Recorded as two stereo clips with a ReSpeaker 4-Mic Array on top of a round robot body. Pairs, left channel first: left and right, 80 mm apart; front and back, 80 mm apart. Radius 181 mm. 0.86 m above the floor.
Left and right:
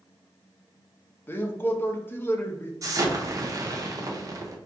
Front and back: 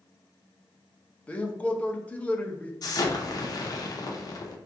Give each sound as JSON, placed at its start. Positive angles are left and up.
{"t": 1.3, "sound": "a man speaking", "azimuth_deg": 60, "distance_m": 0.8}
{"t": 2.8, "sound": "an explosion", "azimuth_deg": -40, "distance_m": 0.6}